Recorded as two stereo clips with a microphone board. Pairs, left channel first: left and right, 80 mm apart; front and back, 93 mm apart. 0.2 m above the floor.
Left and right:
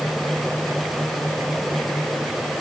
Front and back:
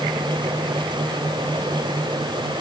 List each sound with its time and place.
Only background noise.